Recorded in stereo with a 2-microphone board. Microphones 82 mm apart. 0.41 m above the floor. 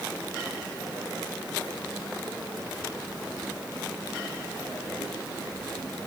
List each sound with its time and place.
Only background noise.